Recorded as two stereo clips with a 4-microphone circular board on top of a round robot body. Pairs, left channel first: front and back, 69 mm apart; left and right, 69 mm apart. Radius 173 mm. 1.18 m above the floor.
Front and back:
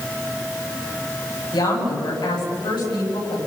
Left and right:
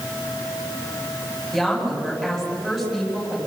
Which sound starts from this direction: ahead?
A woman speaking, at 1.5 s.